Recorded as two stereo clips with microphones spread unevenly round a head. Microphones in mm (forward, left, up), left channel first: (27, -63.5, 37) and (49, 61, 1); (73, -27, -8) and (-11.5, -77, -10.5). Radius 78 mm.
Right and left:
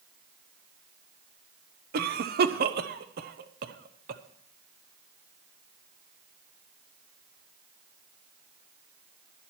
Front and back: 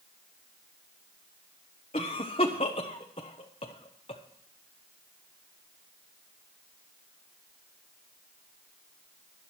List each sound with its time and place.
1.9 s a cough: 80° left, 1.2 m